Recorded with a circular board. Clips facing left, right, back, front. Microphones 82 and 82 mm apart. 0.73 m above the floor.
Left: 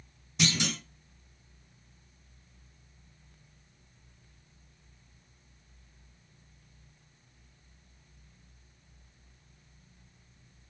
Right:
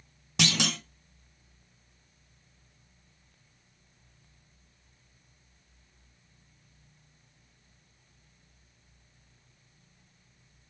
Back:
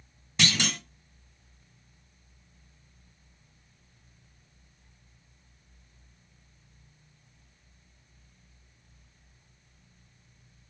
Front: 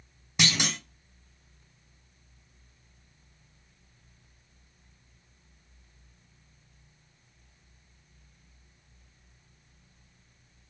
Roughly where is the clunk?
Right.